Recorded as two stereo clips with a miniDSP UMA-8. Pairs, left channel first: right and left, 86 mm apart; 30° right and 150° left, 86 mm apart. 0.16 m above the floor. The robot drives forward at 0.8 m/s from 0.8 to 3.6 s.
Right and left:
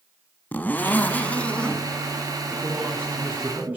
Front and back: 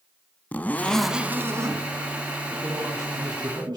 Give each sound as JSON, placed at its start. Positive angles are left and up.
{"t": 0.5, "sound": "a zipper", "azimuth_deg": -60, "distance_m": 0.5}
{"t": 2.5, "sound": "a man speaking", "azimuth_deg": 130, "distance_m": 1.3}